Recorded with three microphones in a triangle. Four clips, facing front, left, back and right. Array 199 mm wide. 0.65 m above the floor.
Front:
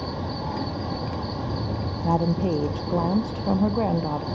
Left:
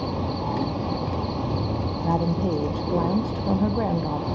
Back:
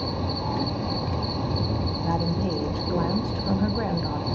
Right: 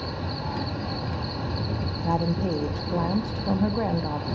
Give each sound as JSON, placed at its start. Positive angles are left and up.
{"t": 0.0, "sound": "an insect", "azimuth_deg": 105, "distance_m": 0.9}
{"t": 2.0, "sound": "a woman speaking", "azimuth_deg": 15, "distance_m": 0.5}